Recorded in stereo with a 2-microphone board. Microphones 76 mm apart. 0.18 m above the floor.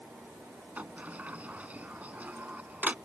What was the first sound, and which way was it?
A sliding door, 20° right (ahead or behind).